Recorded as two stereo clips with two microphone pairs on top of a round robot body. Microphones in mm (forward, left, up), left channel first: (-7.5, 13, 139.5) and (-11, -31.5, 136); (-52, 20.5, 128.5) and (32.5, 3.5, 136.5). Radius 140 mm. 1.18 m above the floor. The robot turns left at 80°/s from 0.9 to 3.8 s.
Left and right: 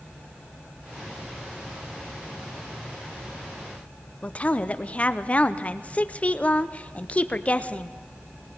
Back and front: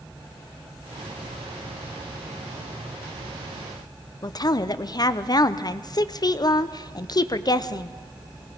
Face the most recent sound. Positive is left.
turn(degrees=145)